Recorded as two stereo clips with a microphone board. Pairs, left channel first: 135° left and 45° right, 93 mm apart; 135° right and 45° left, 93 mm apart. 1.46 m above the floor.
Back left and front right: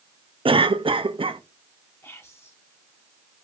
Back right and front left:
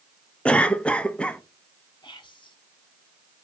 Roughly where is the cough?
Ahead right.